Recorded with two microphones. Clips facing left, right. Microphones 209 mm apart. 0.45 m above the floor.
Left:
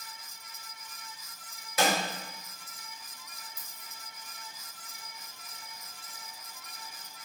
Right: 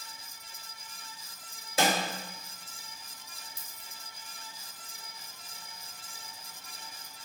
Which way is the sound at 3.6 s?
85° right.